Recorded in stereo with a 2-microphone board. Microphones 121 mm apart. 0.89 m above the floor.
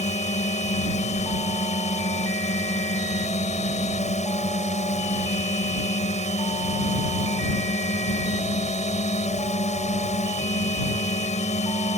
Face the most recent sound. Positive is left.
turn(degrees=70)  # may be behind; listen again after turning